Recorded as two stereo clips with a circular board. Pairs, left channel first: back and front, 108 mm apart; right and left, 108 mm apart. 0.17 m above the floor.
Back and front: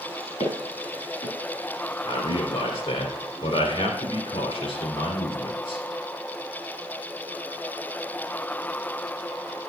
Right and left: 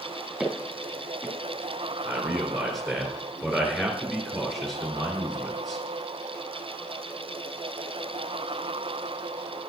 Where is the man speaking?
Straight behind, 2 m.